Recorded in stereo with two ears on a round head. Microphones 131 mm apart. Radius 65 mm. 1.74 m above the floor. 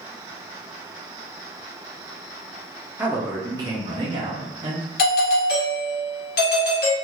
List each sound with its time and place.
3.0 s a man speaking: 10° right (ahead or behind), 0.7 m; by 4.9 s 40° right (ahead or behind), 1.0 m
5.0 s a doorbell: 70° left (ahead or behind), 1.2 m